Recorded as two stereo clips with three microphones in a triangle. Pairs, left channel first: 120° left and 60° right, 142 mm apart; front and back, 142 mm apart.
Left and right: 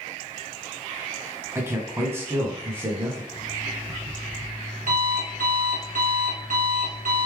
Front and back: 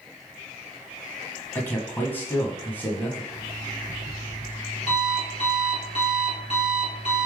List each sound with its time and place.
1.6 s a man speaking: 40° right, 1.1 m
3.3 s an alarm clock: 40° right, 2 m